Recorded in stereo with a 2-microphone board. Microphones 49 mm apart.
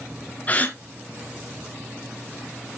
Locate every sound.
0.5 s a gasp: 30° left (ahead or behind), 2 m